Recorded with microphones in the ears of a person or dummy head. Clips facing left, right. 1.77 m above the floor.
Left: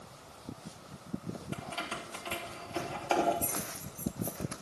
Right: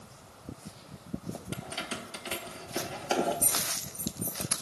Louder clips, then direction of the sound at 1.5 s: Right 1 dB; 15° right (ahead or behind).